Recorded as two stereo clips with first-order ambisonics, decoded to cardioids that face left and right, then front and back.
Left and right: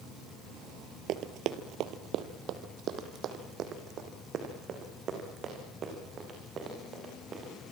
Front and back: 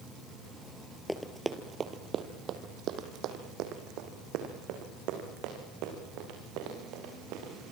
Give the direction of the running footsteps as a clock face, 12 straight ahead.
3 o'clock.